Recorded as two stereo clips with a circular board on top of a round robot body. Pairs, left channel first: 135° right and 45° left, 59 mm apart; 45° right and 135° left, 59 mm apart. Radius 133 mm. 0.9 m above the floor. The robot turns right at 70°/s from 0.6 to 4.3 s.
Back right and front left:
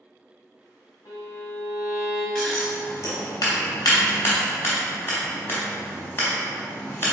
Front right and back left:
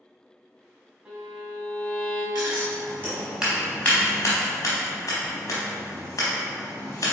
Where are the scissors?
140° left, 0.8 m; by 7.1 s 85° right, 0.8 m.